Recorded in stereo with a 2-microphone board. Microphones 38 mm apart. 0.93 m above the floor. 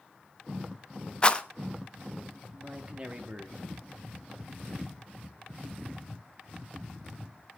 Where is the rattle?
30° left (ahead or behind), 1.0 m.